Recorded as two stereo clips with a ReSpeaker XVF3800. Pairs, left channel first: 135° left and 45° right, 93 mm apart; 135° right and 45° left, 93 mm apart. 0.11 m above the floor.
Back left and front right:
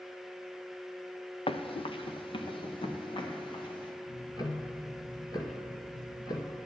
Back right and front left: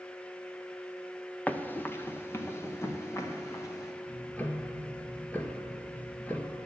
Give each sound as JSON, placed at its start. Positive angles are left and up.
{"t": 1.5, "sound": "running footsteps", "azimuth_deg": 150, "distance_m": 0.9}
{"t": 4.1, "sound": "ticking", "azimuth_deg": 155, "distance_m": 1.3}